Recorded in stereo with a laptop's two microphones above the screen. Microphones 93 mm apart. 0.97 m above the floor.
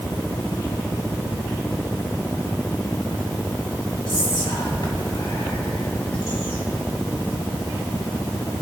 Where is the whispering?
75° left (ahead or behind), 1.6 m.